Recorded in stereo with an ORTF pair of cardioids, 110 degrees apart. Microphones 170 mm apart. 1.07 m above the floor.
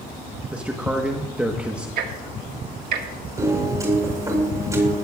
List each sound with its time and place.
0.5 s a man speaking: 5° right, 1.1 m
2.0 s ticking: 65° right, 1.6 m
3.4 s a piano: 20° right, 4.5 m